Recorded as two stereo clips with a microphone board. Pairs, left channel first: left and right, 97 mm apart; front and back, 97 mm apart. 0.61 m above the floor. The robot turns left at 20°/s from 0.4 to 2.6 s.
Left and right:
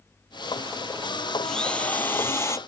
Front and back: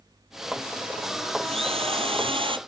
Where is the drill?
175° left; by 2.6 s 150° left.